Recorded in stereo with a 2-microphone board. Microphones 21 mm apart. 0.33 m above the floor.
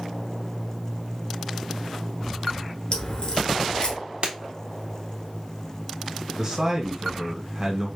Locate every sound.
2.9 s a crack: 45° left (ahead or behind), 1.4 m
4.2 s breaking glass: 70° right (ahead or behind), 1.1 m
6.4 s a man speaking: 25° right (ahead or behind), 1.2 m